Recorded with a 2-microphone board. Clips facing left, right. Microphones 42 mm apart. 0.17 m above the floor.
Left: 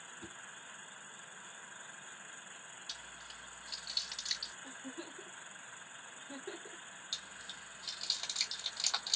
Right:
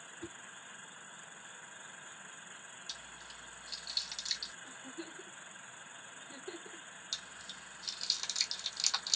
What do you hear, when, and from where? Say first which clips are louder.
0.2 s a whoosh: right 6 dB; 5° right (ahead or behind), 0.9 m
2.9 s chewing: left 1 dB; 20° left (ahead or behind), 2 m
4.6 s a giggle: even; 55° left (ahead or behind), 1.4 m
7.1 s chewing: even; 20° left (ahead or behind), 1.3 m